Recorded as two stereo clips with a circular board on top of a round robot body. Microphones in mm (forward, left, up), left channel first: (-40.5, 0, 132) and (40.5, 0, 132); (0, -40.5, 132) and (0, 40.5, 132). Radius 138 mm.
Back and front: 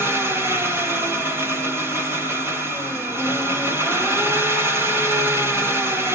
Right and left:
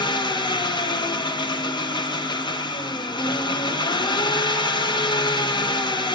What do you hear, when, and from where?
0.0 s an engine running: 60° right, 1.3 m